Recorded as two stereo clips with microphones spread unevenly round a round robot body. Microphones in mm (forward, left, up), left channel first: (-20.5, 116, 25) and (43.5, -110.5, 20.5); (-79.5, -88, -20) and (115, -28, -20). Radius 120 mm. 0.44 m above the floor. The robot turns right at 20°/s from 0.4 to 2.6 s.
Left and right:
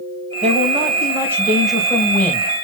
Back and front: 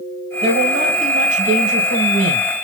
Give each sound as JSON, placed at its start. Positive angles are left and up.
{"t": 0.4, "sound": "a man speaking", "azimuth_deg": -20, "distance_m": 3.0}